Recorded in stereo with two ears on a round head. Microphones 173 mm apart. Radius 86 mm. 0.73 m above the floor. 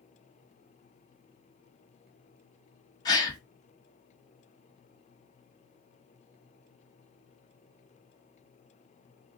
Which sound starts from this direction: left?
A gasp, at 3.0 s.